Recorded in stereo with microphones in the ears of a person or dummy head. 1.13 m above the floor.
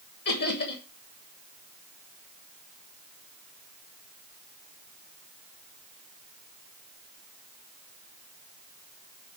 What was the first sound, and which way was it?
Laughter, 60° left (ahead or behind).